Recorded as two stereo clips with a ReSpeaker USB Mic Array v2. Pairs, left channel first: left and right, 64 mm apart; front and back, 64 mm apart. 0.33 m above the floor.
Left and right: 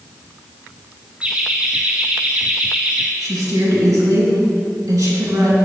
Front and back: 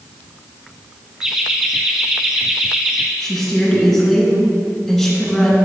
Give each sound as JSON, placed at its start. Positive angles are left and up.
{"t": 1.2, "sound": "laughter", "azimuth_deg": -120, "distance_m": 1.1}
{"t": 3.2, "sound": "a woman speaking", "azimuth_deg": -85, "distance_m": 3.0}